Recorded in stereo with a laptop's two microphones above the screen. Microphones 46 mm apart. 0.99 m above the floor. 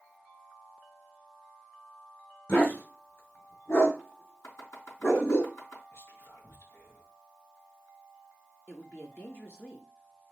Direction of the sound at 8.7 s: 50° left (ahead or behind).